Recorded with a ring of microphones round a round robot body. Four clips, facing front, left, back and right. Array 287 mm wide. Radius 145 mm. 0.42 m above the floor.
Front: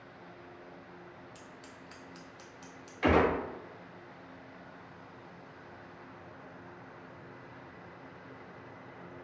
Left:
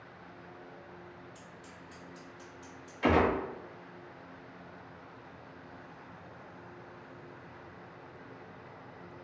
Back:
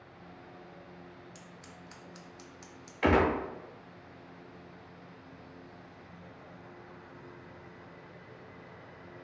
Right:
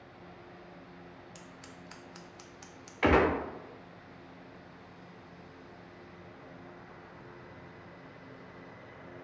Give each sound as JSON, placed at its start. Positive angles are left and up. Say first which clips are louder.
{"t": 1.4, "sound": "scissors", "louder": "even, front 1 dB", "azimuth_deg": -95, "distance_m": 0.5}
{"t": 3.0, "sound": "a gunshot", "louder": "right 1 dB, even", "azimuth_deg": -110, "distance_m": 0.8}